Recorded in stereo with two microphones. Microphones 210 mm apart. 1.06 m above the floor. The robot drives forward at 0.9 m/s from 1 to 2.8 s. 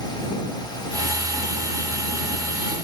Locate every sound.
Only background noise.